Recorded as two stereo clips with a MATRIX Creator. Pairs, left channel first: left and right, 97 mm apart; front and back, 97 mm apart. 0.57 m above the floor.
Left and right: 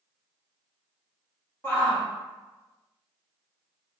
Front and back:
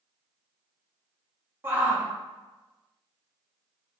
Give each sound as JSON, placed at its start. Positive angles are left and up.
{"t": 1.6, "sound": "a shout", "azimuth_deg": 135, "distance_m": 0.7}